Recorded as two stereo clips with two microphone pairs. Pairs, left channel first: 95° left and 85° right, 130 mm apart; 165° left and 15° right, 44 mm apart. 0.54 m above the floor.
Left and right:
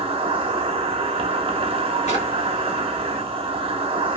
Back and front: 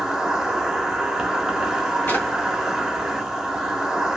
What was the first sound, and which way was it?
An insect, 90° right.